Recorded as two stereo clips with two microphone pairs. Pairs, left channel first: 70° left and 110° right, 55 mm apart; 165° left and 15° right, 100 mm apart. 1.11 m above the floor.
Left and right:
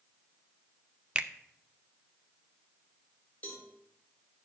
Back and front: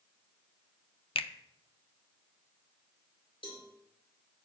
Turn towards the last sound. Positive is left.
turn(degrees=135)